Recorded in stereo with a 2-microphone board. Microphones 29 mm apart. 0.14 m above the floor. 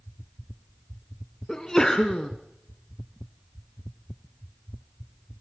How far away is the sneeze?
About 1.3 m.